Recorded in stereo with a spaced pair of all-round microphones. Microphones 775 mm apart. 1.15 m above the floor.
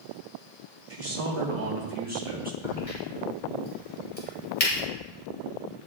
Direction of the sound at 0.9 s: 50° right (ahead or behind).